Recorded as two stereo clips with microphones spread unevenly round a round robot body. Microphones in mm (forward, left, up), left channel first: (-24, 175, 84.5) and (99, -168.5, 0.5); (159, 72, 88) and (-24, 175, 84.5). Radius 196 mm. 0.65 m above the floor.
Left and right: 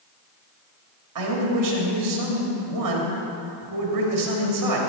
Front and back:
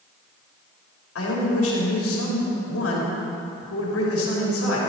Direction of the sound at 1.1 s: 40° right.